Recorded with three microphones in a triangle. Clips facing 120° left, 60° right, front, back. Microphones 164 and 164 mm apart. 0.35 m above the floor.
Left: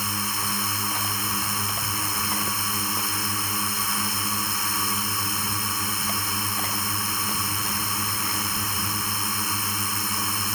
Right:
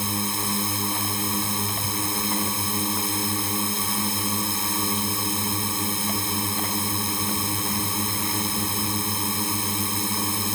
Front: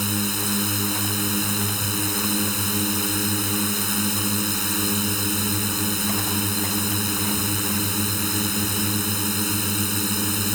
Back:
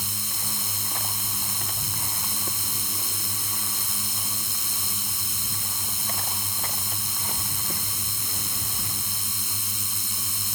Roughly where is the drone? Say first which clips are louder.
Right 4 dB, front 14 dB; ahead.